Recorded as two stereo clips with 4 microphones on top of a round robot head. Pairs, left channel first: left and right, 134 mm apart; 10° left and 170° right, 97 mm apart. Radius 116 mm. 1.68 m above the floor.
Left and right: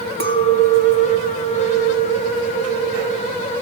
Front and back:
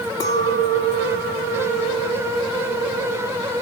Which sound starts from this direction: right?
A clink, at 0.2 s.